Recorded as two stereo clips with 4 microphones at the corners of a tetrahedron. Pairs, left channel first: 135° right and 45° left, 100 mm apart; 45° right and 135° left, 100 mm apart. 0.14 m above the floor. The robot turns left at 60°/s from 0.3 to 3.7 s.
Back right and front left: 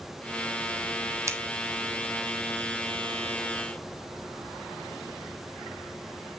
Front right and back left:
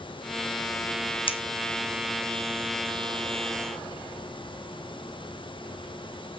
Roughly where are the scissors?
Ahead.